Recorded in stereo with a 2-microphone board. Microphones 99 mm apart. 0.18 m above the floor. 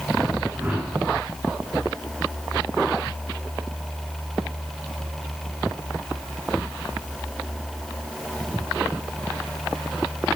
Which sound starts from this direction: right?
A whoosh, at 0.5 s.